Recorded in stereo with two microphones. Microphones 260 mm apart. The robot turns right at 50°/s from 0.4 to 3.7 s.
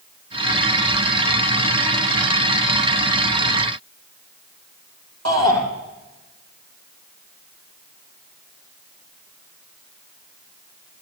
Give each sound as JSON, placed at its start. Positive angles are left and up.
{"t": 5.2, "sound": "a shout", "side_deg": -75, "distance_m": 6.0}